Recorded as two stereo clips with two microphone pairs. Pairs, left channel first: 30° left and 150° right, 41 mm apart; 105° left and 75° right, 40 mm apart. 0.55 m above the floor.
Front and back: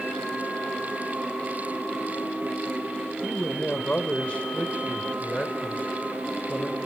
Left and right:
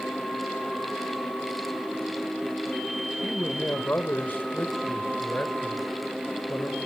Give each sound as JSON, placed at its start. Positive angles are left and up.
{"t": 3.2, "sound": "a man speaking", "azimuth_deg": 90, "distance_m": 2.5}